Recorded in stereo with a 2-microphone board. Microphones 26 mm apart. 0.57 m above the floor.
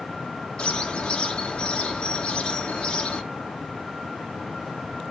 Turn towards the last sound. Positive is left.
turn(degrees=45)  # may be behind; listen again after turning